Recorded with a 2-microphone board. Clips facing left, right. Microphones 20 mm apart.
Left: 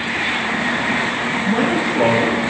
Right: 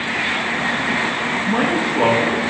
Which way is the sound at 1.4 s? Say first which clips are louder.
Left 1 dB; 10° right (ahead or behind).